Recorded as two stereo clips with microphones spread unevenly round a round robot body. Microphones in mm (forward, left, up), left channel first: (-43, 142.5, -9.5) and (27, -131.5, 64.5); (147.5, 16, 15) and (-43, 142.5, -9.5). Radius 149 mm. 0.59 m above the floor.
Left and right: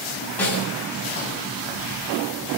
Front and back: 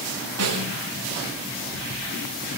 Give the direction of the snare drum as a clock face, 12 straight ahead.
6 o'clock.